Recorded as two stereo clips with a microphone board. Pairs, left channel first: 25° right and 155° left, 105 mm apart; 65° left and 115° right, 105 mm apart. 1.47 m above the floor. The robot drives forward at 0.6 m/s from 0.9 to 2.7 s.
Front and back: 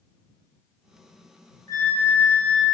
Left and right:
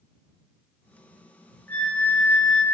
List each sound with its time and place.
1.7 s a flute: 5° left, 1.2 m; by 2.6 s 15° left, 1.0 m